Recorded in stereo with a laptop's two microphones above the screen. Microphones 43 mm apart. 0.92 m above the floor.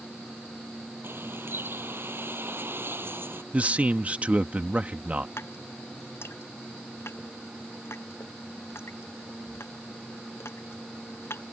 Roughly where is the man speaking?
Right.